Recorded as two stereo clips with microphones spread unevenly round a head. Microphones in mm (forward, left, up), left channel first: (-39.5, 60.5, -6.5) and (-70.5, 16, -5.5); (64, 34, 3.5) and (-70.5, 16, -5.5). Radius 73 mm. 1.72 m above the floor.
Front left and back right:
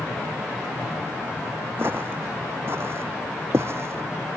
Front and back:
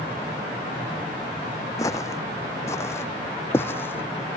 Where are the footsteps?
60° right; by 4.4 s 70° right.